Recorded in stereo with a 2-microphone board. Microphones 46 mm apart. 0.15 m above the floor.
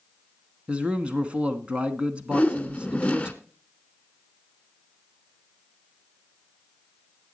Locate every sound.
0.7 s a man speaking: 25° right (ahead or behind), 1.1 m
2.3 s a whoosh: 25° left (ahead or behind), 0.8 m